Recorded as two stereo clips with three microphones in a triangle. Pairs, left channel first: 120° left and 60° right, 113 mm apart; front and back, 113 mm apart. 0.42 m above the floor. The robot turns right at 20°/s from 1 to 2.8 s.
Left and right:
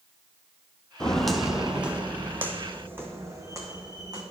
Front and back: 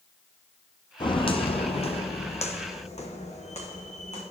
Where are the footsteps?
40° left, 1.0 m; by 4.2 s 5° right, 2.5 m.